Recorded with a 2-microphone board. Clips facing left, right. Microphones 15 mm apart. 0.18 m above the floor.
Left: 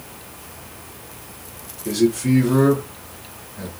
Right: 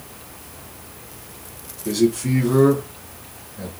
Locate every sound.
1.9 s a man speaking: 15° right (ahead or behind), 1.8 m; by 3.7 s 10° left (ahead or behind), 2 m